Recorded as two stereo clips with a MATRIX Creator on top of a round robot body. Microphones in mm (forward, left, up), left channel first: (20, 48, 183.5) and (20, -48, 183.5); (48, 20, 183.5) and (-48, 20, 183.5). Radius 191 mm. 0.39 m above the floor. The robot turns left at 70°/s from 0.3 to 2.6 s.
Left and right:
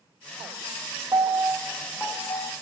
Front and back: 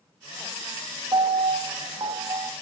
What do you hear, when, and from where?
1.1 s a piano: 140° right, 0.9 m; by 2.5 s 125° left, 0.9 m